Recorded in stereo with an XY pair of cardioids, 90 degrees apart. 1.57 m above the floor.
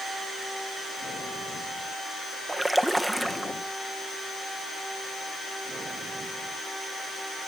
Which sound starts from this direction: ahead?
A splash, at 2.5 s.